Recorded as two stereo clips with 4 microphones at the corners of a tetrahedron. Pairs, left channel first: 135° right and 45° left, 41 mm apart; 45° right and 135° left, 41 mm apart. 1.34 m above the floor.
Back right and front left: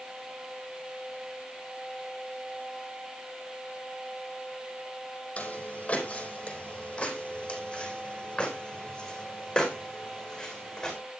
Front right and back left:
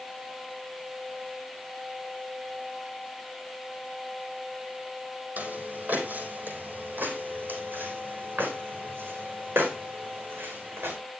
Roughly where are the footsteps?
Behind.